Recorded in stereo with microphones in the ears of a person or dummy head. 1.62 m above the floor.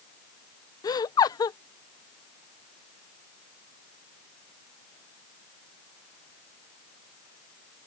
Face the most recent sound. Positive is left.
turn(degrees=25)  # may be behind; listen again after turning